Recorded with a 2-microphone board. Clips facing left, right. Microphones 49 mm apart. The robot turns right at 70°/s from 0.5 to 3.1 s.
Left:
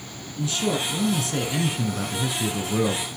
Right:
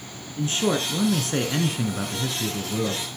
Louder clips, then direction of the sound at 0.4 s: Right 2 dB; 120° right.